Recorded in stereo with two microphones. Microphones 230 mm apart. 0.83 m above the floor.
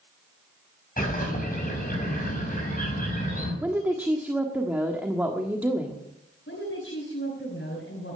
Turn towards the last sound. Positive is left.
turn(degrees=55)  # may be behind; listen again after turning